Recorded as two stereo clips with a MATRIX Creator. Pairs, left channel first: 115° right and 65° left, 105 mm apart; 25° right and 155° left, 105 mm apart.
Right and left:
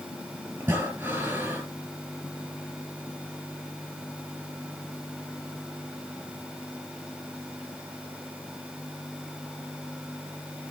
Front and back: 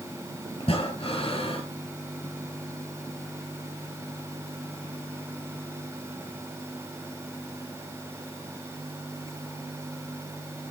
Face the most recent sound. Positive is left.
turn(degrees=0)